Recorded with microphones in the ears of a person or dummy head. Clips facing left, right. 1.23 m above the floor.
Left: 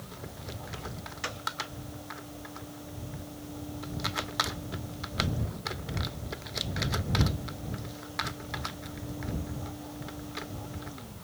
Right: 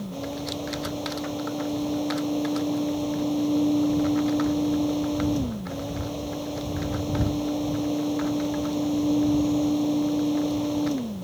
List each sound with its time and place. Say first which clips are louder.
0.0 s a fan: right 13 dB; 85° right